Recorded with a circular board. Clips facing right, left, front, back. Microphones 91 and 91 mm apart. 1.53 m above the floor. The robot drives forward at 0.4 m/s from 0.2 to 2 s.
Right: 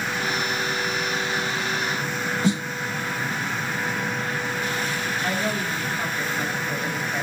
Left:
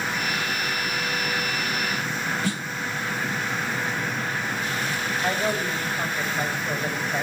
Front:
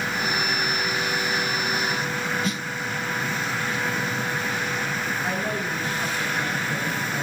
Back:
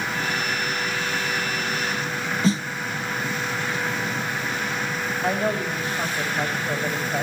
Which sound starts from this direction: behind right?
A snare drum, at 2.4 s.